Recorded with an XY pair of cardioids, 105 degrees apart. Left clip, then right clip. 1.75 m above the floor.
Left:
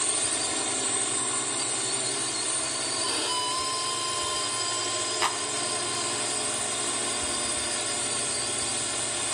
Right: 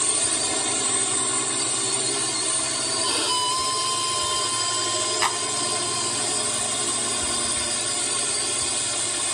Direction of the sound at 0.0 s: 35° right.